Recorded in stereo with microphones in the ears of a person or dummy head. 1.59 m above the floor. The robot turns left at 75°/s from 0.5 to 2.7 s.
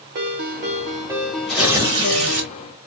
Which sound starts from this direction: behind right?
A ringtone, at 0.1 s.